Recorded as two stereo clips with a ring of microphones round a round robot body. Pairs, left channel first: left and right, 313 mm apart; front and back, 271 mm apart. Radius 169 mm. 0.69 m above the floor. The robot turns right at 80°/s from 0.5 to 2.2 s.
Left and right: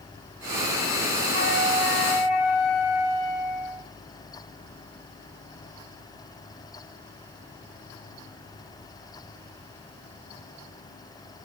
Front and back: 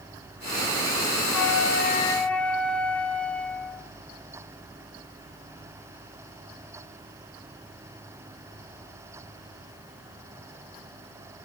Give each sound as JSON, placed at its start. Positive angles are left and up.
{"t": 1.3, "sound": "a flute", "azimuth_deg": 15, "distance_m": 3.0}